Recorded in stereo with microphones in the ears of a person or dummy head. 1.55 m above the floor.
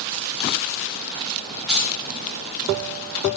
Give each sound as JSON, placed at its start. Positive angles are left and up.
{"t": 1.7, "sound": "keys jangling", "side_deg": 5, "distance_m": 0.9}